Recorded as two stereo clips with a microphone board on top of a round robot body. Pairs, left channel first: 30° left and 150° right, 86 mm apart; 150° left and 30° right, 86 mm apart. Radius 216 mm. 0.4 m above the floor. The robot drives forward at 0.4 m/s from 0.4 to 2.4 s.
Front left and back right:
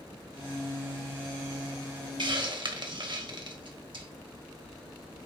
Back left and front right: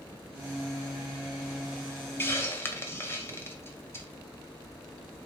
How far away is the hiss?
About 1.5 m.